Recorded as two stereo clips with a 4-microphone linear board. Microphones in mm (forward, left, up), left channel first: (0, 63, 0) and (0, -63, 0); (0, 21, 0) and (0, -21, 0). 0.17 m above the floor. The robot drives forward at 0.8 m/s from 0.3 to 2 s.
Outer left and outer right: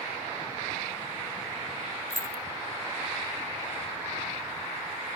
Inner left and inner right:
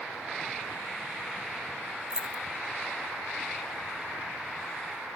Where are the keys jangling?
20° right (ahead or behind), 0.7 m.